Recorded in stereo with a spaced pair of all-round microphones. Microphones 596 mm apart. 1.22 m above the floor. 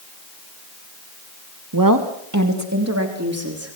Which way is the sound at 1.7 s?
35° right (ahead or behind).